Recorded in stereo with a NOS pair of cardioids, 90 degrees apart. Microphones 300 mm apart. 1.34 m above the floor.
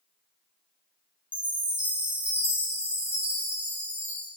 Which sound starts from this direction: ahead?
A chime, at 1.3 s.